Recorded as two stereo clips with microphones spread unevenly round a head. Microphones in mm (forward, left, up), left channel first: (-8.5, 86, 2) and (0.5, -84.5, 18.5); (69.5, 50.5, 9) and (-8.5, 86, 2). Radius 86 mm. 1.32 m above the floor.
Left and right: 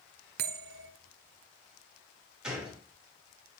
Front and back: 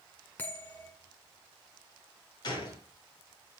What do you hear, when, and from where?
0.4 s a bell: 100° right, 0.7 m
2.4 s a gunshot: 5° right, 2 m